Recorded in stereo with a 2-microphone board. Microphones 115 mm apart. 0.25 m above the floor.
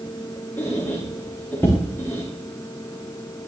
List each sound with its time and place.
0.6 s a squeak: 20° left (ahead or behind), 5.5 m